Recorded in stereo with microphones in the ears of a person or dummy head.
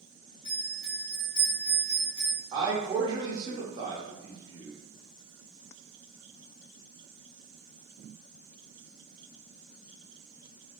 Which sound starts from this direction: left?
A bell, at 0.5 s.